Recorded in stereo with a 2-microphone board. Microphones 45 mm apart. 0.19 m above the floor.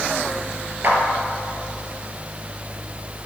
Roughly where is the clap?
Right.